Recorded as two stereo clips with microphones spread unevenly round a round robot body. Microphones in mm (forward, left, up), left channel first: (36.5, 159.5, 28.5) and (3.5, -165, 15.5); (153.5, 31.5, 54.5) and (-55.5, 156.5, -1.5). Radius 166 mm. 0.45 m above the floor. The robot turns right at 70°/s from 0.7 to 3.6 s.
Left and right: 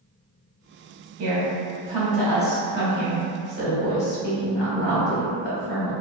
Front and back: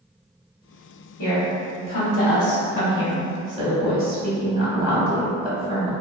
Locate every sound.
1.2 s a woman speaking: 45° right, 1.0 m; by 5.9 s 120° left, 1.0 m